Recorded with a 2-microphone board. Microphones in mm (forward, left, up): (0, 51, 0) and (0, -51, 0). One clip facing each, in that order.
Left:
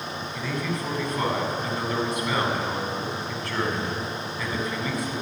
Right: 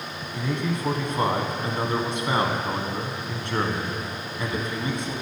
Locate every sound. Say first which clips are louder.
0.3 s a man speaking: right 3 dB; 25° right (ahead or behind), 1.6 m